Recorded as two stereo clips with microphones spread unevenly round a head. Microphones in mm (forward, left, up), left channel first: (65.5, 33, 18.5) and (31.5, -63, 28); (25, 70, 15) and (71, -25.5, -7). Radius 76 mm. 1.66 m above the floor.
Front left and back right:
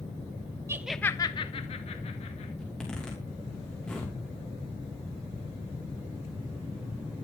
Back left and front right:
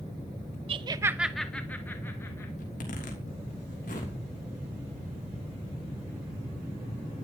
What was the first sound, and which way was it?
Laughter, 75° right.